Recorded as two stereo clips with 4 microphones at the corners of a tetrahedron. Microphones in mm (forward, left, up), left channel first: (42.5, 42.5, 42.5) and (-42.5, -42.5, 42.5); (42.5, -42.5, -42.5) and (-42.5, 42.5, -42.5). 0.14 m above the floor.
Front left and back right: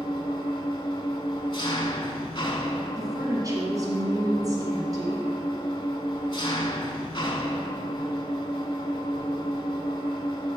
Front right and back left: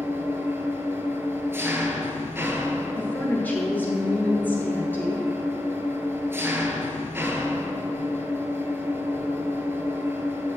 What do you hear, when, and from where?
0.0 s an engine running: 75° left, 0.7 m
3.0 s a woman speaking: 110° right, 1.8 m